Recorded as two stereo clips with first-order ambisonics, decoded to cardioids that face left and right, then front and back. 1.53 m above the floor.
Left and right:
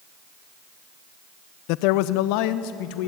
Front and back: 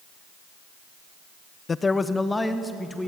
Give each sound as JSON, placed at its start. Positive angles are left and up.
{"t": 1.7, "sound": "a man speaking", "azimuth_deg": 75, "distance_m": 0.5}